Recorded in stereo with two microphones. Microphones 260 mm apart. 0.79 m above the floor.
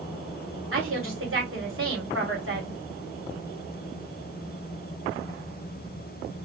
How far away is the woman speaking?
About 2.0 m.